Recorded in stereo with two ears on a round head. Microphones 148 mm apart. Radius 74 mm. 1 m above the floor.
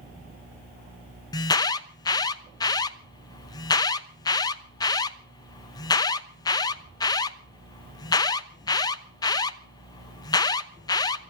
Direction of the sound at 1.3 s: 25° left (ahead or behind).